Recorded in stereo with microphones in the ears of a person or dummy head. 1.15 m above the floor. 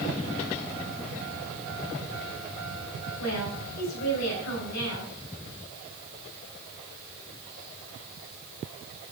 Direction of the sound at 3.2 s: 80° left.